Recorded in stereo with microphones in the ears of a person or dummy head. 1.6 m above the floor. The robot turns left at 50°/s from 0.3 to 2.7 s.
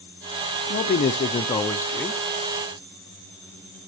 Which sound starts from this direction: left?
A man speaking, at 0.7 s.